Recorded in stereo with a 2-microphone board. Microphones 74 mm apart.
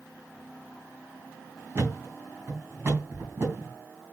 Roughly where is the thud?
Right.